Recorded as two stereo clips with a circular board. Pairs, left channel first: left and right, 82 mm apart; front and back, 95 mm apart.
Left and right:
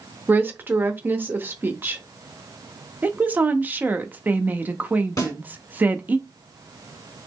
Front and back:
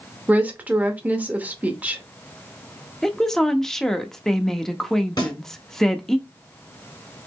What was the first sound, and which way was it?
A woman speaking, 125° right.